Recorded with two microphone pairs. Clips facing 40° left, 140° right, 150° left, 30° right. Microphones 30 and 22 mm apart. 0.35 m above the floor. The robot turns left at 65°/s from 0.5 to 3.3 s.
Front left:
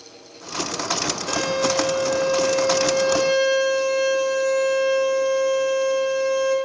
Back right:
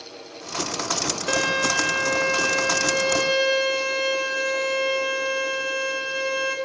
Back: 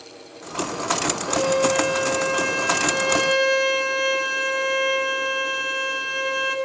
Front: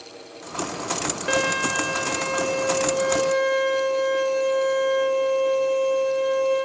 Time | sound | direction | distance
1.3 | a violin | 75° right | 5 m